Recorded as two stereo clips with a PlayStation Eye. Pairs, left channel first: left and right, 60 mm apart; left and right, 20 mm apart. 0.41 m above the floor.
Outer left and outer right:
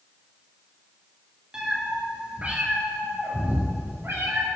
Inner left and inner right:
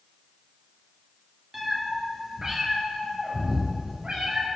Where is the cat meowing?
10° right (ahead or behind), 3 m; by 4.5 s 50° right (ahead or behind), 4 m.